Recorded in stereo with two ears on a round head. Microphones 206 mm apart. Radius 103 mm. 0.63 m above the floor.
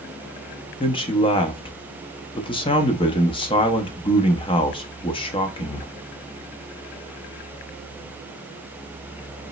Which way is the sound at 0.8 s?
25° left (ahead or behind).